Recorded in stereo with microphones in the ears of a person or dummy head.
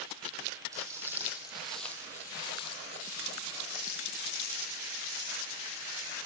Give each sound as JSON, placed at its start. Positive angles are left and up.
{"t": 0.7, "sound": "footsteps", "side_deg": -15, "distance_m": 2.5}